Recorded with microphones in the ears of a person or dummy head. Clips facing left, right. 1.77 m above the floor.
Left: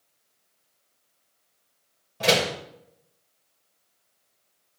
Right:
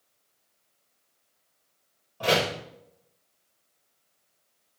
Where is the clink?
No clink in this recording.